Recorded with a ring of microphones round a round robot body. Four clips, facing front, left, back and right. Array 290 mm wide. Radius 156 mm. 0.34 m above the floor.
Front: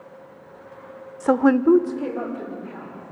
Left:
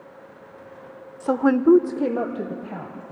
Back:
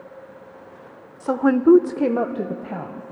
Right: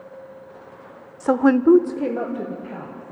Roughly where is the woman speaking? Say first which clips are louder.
Right 2 dB, front 1 dB; ahead right.